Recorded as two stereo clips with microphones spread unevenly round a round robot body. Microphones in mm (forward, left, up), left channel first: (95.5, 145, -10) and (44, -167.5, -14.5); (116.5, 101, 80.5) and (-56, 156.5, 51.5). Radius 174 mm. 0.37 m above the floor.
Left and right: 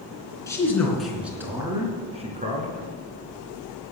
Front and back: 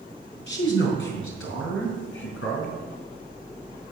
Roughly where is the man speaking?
Ahead.